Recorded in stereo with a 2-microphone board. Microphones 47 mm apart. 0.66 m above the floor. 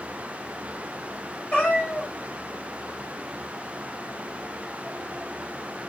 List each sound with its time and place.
1.5 s a cat meowing: 20° left (ahead or behind), 1.4 m